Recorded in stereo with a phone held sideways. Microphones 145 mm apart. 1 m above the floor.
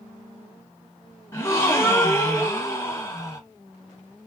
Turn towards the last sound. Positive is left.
turn(degrees=20)  # may be behind; listen again after turning